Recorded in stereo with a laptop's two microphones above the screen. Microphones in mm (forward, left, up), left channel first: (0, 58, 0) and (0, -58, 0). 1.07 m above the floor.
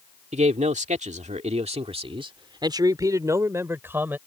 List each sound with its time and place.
0.3 s a man speaking: 75° right (ahead or behind); by 4.2 s 15° right (ahead or behind)